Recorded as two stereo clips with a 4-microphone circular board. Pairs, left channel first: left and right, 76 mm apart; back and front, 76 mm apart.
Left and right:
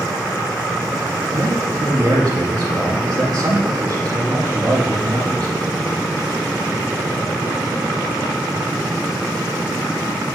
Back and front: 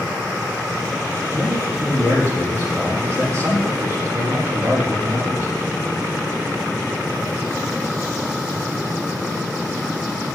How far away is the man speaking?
About 9.5 m.